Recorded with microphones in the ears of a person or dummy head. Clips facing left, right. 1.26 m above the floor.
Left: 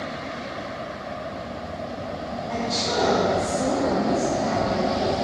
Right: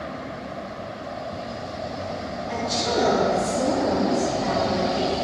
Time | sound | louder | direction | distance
2.5 | a woman speaking | right 2 dB | 55° right (ahead or behind) | 2.5 m